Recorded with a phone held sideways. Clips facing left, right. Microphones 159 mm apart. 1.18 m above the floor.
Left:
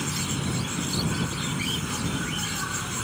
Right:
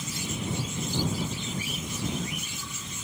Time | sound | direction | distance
0.0 | an insect | 75° left (ahead or behind) | ?